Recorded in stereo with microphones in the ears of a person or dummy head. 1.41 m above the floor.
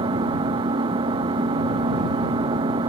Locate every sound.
0.0 s an engine running: 25° right (ahead or behind)